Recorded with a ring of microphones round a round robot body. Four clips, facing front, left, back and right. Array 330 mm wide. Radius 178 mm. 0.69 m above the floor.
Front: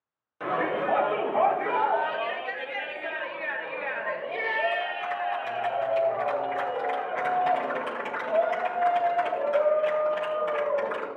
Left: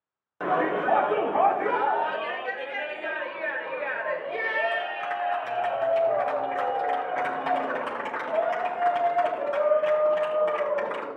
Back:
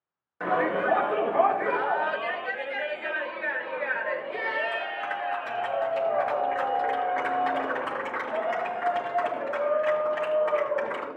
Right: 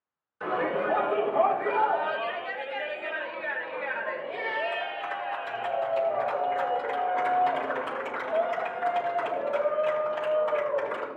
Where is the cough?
I don't hear a cough.